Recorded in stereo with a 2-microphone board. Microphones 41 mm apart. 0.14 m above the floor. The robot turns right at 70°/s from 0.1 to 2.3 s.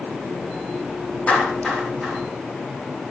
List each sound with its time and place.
1.3 s a clap: 35° left (ahead or behind), 5 m; by 2.2 s 25° right (ahead or behind), 5 m